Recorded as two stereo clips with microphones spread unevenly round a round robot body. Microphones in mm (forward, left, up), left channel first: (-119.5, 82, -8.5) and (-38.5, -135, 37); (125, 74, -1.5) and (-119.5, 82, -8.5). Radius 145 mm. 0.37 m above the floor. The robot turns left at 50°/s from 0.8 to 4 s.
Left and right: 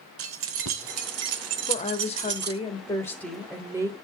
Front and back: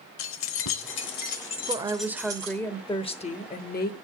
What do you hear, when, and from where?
0.2 s keys jangling: 30° right, 0.9 m; by 2.6 s 125° right, 0.9 m
1.7 s a woman speaking: 125° left, 1.0 m; by 3.9 s 10° left, 1.0 m